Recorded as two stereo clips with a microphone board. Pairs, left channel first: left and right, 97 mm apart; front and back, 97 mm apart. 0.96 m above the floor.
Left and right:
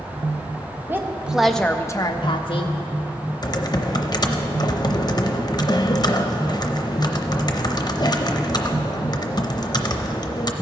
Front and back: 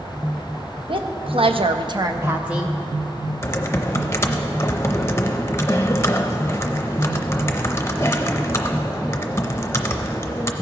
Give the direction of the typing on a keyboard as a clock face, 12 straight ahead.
10 o'clock.